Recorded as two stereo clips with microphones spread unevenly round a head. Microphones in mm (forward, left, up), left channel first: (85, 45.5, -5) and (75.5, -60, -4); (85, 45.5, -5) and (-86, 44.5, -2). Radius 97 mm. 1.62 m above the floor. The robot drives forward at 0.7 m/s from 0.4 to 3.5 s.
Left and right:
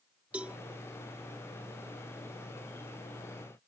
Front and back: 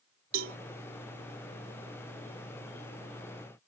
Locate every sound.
0.3 s a cowbell: straight behind